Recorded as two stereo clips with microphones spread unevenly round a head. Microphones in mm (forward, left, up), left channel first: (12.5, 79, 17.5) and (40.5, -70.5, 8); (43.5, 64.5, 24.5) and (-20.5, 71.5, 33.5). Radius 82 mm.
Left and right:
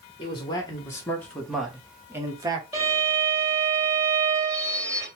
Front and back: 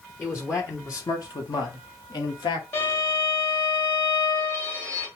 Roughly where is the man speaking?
Ahead left.